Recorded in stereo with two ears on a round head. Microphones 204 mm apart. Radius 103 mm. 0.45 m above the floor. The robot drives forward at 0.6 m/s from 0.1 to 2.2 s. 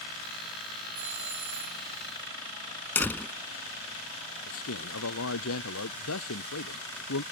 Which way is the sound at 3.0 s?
10° left (ahead or behind).